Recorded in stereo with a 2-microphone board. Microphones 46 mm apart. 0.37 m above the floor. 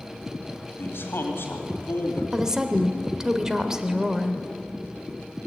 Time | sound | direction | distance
0.8 | a man speaking | 60° left (ahead or behind) | 2.5 m
2.3 | a woman speaking | 15° right (ahead or behind) | 0.9 m